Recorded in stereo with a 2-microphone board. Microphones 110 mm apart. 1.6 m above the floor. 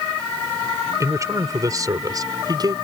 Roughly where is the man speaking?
Right.